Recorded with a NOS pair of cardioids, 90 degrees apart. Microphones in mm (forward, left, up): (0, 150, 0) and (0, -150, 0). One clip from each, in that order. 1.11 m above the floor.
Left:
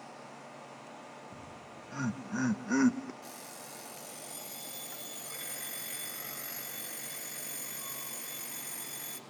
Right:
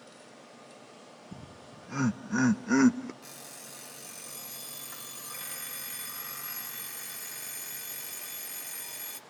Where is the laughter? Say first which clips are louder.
Left 1 dB; 50° right, 1.8 m; by 3.1 s 25° right, 0.9 m.